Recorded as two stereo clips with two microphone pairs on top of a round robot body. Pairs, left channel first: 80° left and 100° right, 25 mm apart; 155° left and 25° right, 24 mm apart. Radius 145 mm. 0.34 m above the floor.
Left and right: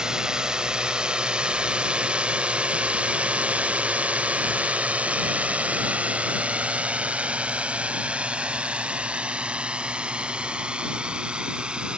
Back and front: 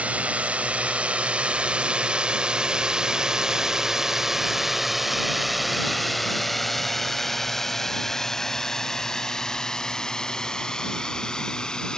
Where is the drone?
40° right; by 12.0 s 150° right.